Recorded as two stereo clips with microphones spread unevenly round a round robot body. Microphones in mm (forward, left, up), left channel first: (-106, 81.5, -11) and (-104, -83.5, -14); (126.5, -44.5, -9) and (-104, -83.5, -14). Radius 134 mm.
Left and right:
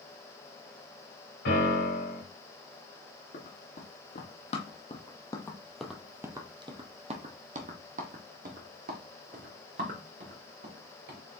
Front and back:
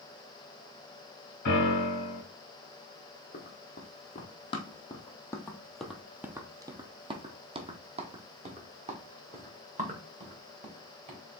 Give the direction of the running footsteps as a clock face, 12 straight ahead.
10 o'clock.